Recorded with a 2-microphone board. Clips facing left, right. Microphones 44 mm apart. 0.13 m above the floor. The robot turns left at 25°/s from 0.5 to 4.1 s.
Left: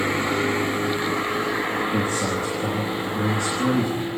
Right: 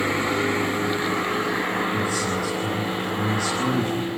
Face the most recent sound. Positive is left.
turn(degrees=0)